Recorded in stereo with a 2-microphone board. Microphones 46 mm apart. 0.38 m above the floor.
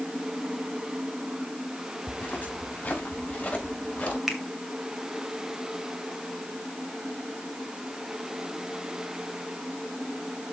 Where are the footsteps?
35° left (ahead or behind), 5 m; by 4.2 s 25° left (ahead or behind), 6 m.